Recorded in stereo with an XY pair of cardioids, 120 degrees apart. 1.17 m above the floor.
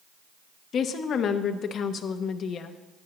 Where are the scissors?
No scissors in this recording.